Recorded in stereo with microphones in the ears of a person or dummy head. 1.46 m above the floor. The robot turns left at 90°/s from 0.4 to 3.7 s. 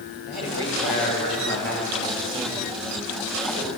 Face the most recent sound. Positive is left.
turn(degrees=-175)